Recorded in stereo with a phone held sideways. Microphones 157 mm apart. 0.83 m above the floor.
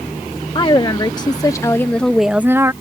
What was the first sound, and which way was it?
A woman speaking, 30° left (ahead or behind).